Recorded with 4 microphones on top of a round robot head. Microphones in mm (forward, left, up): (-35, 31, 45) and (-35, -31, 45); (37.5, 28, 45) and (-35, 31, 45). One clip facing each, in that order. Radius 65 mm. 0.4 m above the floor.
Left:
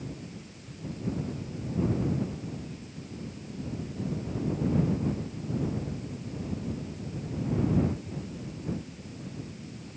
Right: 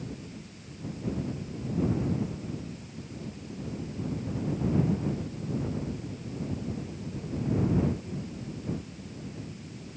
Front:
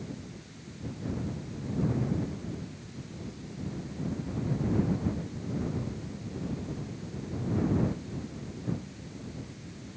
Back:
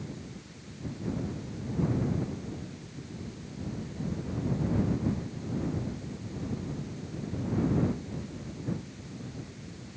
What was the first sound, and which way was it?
Only background noise.